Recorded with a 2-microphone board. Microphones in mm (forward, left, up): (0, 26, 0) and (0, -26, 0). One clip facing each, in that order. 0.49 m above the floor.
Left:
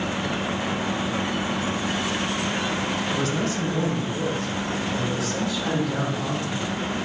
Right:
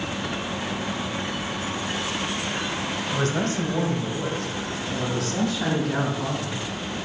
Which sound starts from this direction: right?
A man speaking, at 3.1 s.